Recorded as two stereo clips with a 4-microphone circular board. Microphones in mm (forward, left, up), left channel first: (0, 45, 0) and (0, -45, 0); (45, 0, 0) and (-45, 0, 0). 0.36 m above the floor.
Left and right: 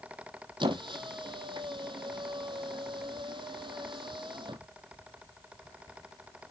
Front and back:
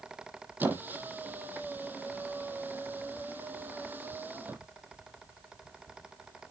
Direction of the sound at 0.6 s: 115° right.